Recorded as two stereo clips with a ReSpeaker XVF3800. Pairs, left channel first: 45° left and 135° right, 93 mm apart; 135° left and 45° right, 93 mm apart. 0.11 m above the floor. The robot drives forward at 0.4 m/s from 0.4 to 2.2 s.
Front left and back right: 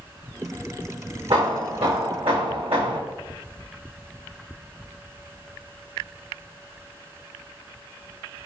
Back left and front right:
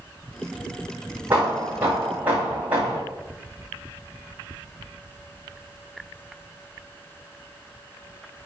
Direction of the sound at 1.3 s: 115° right.